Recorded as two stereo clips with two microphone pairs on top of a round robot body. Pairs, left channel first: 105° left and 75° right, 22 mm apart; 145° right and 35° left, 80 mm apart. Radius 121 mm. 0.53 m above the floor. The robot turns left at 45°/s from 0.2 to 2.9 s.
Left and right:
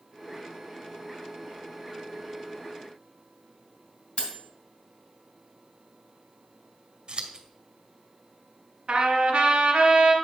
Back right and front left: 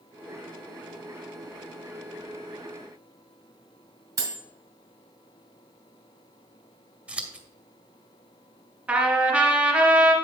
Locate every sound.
4.2 s cutlery clinking: 85° left, 2.5 m
7.1 s scissors: 35° right, 1.2 m
8.9 s a trumpet: 40° right, 1.2 m